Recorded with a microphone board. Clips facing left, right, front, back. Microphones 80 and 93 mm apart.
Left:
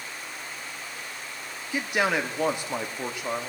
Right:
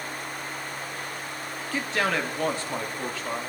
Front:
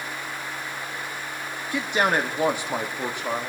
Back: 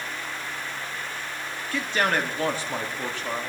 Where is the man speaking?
40° left, 1.2 m.